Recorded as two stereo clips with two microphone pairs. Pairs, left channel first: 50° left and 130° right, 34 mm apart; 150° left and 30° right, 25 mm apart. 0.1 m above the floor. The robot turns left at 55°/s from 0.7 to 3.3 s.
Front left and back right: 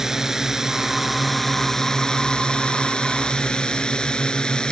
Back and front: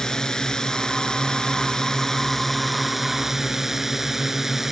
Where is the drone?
170° left; by 4.7 s 30° left.